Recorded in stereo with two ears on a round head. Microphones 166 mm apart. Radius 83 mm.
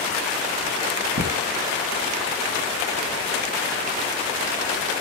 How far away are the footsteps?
About 2.5 m.